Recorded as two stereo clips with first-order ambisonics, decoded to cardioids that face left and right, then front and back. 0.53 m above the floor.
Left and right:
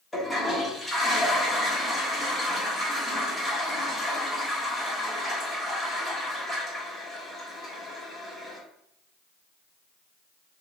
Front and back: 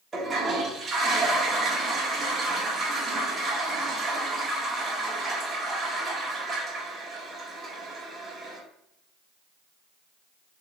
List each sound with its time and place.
0.1 s a toilet flushing: 150° left, 1.3 m